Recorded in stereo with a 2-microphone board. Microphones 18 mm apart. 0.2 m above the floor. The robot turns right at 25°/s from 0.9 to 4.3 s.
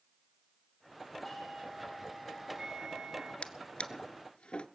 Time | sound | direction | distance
1.2 | a doorbell | 175° right | 8 m
3.4 | a drawer | 70° left (ahead or behind) | 0.7 m